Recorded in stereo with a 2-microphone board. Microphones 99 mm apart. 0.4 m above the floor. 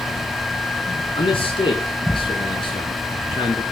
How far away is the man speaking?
About 4.5 m.